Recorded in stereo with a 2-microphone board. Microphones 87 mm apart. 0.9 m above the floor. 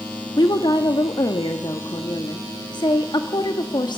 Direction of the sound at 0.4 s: 60° left (ahead or behind).